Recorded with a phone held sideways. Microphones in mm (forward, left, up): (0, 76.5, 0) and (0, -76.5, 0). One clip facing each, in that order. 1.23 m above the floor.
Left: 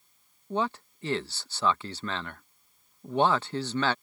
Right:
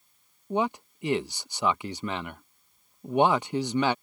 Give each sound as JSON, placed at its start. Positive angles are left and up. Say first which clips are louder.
{"t": 0.5, "sound": "a man speaking", "louder": "right 3 dB", "side_deg": -15}